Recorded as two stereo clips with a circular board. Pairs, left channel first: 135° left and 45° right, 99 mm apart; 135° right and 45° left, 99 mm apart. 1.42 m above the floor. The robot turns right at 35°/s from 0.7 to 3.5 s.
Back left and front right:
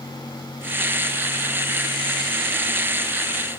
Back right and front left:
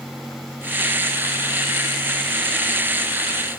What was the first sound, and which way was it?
Only background noise.